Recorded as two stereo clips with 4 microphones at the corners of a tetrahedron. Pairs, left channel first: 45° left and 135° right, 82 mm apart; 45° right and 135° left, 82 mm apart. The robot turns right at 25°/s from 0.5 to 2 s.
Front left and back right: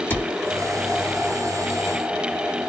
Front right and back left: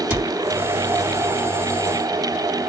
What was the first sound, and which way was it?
A cupboard door, 75° left.